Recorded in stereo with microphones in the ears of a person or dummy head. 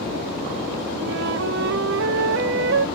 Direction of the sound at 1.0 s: 65° right (ahead or behind).